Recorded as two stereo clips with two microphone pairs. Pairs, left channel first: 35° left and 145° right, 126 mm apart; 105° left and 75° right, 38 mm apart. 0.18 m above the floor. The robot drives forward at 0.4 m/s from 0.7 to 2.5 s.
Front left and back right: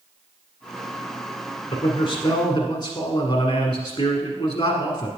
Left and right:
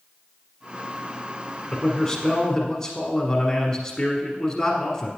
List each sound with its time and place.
1.7 s a man speaking: 30° left, 1.4 m; by 5.1 s 45° left, 1.2 m